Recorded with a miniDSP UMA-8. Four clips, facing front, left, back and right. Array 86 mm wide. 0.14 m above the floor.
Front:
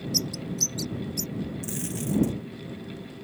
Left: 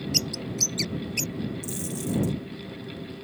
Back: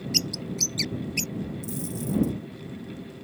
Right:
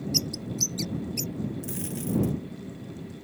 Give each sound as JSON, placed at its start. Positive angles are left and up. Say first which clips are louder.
{"t": 0.1, "sound": "a bird", "louder": "left 1 dB, even", "azimuth_deg": 150}
{"t": 1.6, "sound": "a dropped coin", "louder": "left 1 dB, even", "azimuth_deg": -20}